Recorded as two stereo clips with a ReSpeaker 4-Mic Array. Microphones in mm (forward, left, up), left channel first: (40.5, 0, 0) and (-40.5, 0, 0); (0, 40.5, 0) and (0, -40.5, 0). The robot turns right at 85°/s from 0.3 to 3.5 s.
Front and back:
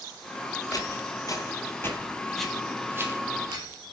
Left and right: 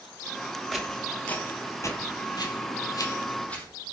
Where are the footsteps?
Straight ahead, 2.5 m; by 3.6 s 160° left, 4 m.